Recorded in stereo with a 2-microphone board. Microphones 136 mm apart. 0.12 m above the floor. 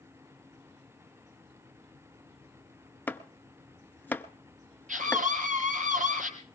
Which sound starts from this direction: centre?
Chopping, at 3.1 s.